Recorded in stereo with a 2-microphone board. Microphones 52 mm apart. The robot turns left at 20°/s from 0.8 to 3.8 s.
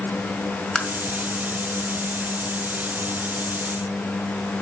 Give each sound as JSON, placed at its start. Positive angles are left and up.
{"t": 0.8, "sound": "tapping", "side_deg": 15, "distance_m": 2.0}